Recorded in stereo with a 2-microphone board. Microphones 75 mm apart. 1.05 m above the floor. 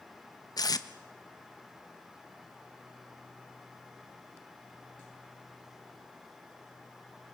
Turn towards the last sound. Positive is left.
turn(degrees=60)  # may be behind; listen again after turning